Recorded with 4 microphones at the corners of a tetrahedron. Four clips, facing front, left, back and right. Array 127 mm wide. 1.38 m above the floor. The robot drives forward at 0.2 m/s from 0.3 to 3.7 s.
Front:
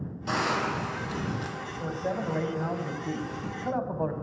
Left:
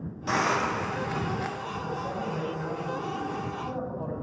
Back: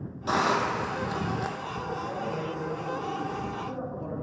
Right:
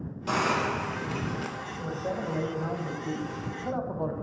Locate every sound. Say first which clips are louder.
0.3 s a hiss: left 1 dB, back 3 dB; 155° right, 0.5 m; by 1.6 s 170° right, 0.7 m
1.8 s a man speaking: right 2 dB, front 3 dB; 15° right, 1.1 m; by 4.1 s 25° right, 0.8 m